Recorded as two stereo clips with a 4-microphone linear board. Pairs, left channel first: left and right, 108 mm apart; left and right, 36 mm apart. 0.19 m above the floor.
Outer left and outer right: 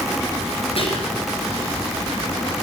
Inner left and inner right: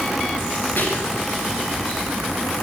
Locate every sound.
0.8 s whispering: 55° left (ahead or behind), 2.5 m